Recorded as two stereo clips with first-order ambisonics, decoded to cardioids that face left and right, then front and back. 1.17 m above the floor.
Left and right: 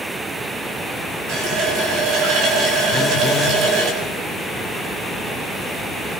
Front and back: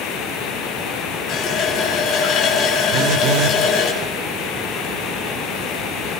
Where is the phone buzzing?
150° left, 1.0 m.